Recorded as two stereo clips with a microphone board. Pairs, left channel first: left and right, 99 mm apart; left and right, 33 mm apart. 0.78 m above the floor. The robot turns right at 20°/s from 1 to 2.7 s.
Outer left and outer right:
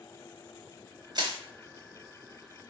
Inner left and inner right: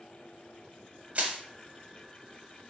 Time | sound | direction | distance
1.1 | crushing | 45° right (ahead or behind) | 0.8 m